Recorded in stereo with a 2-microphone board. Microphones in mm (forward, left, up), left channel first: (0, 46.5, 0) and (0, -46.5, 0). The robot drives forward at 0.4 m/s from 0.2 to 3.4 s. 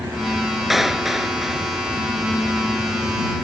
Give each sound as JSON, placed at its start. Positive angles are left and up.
{"t": 0.7, "sound": "a clap", "side_deg": 0}